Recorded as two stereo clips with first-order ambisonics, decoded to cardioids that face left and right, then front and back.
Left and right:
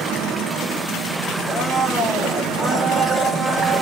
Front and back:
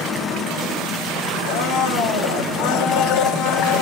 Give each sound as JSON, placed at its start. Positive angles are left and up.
{"t": 1.5, "sound": "a blender", "azimuth_deg": -5, "distance_m": 0.6}